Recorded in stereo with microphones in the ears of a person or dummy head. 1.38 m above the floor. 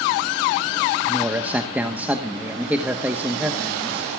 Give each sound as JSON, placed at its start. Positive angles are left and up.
{"t": 1.0, "sound": "a man speaking", "side_deg": -15, "distance_m": 1.2}